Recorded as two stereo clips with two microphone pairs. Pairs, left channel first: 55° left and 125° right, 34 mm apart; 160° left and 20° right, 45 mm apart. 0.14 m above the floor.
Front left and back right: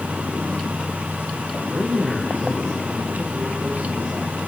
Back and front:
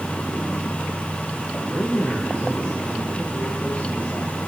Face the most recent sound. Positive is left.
turn(degrees=-150)